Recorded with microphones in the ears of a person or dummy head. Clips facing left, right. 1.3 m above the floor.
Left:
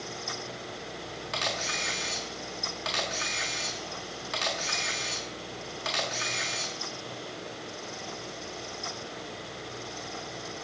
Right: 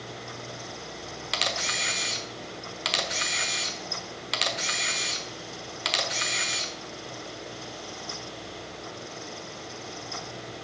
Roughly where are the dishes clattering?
No dishes clattering in this recording.